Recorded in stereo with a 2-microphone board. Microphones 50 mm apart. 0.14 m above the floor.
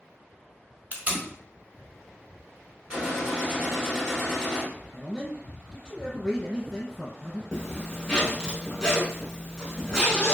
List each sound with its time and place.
0.9 s tape being pulled: 35° right (ahead or behind), 0.6 m
2.9 s a gunshot: 15° right (ahead or behind), 1.5 m
4.9 s a man speaking: 10° left (ahead or behind), 1.7 m
7.5 s a zipper: 15° left (ahead or behind), 0.9 m